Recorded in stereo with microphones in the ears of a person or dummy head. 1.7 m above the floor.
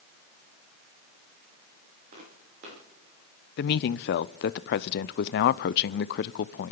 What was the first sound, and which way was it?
Footsteps, 45° right (ahead or behind).